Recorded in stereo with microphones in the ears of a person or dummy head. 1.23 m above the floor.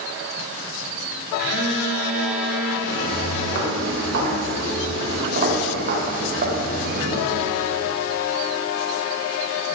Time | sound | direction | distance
1.4 | a phone buzzing | 65° right (ahead or behind) | 2.5 m
2.9 | footsteps | 65° right (ahead or behind) | 4 m